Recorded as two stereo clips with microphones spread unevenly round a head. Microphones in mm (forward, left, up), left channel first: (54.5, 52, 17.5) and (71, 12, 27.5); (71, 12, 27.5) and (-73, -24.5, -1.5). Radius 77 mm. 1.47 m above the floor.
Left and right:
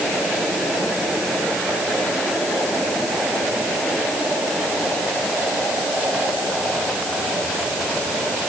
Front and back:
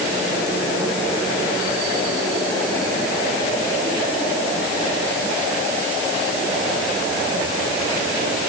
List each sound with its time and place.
Only background noise.